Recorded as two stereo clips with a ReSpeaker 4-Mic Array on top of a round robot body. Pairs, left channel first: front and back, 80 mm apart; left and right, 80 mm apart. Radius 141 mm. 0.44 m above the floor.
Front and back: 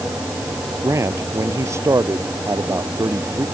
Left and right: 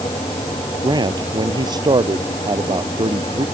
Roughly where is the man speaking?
Behind right.